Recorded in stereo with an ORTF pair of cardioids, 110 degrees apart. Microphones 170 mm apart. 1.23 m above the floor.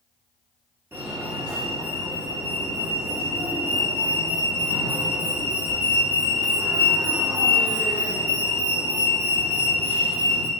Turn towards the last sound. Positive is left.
turn(degrees=-15)